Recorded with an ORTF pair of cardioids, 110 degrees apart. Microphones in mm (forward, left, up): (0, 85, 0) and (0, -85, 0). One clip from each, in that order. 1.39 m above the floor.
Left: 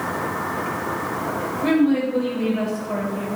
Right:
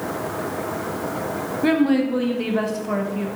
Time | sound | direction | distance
1.6 | a woman speaking | 35° right | 1.8 m